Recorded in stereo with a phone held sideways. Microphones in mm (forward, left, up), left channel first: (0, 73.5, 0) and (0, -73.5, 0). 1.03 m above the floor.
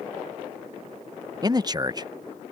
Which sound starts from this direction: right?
A man speaking, at 1.4 s.